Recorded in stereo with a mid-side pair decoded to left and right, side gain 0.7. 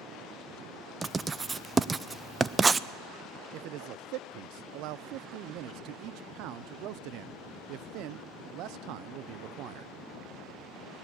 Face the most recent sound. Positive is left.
turn(degrees=-60)